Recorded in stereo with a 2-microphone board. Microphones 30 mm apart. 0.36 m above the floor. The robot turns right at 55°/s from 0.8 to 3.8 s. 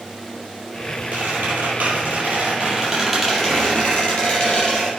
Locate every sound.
1.1 s a squeak: 115° right, 5.5 m; by 4.9 s 30° left, 5.5 m